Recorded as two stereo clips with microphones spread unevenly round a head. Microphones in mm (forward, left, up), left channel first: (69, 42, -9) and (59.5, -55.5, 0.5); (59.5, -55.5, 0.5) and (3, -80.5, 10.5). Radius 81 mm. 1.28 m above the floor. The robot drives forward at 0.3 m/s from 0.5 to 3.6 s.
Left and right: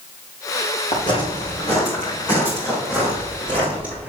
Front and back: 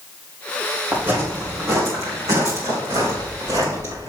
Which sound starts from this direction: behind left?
Footsteps, at 0.9 s.